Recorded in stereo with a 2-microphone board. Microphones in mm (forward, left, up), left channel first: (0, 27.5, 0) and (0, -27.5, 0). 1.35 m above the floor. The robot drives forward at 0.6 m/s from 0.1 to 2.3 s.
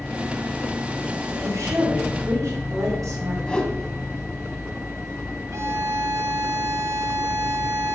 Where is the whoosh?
15° left (ahead or behind), 1.7 m.